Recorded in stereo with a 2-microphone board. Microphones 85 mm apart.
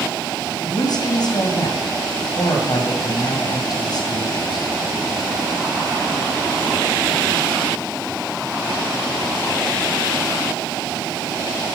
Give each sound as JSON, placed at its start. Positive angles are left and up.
{"t": 0.6, "sound": "a woman speaking", "side_deg": 55, "distance_m": 2.0}